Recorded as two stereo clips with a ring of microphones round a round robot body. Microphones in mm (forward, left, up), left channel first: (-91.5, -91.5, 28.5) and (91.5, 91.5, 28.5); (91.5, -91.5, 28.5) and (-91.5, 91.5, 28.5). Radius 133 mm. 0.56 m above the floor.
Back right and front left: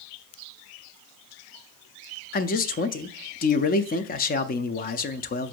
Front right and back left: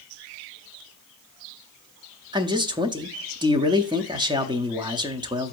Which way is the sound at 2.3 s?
160° right.